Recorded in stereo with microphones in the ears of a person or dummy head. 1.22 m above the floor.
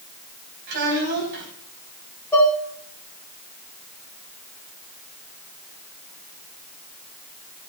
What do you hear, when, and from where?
0.7 s a child speaking: 65° right (ahead or behind), 5.5 m
2.3 s dishes clattering: 15° left (ahead or behind), 1.9 m